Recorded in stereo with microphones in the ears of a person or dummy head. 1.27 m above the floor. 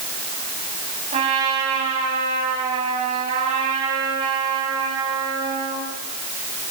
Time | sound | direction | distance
1.1 | a trumpet | 35° right (ahead or behind) | 9 m